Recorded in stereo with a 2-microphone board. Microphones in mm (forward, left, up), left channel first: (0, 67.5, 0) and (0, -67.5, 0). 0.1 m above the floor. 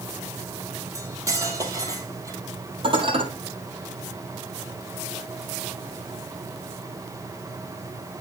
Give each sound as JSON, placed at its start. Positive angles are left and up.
{"t": 0.9, "sound": "cutlery clinking", "side_deg": -25, "distance_m": 1.9}
{"t": 2.8, "sound": "dishes clattering", "side_deg": -40, "distance_m": 2.5}